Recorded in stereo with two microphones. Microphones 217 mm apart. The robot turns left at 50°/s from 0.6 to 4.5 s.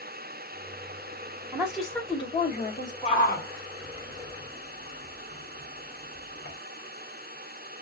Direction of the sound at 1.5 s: 165° right.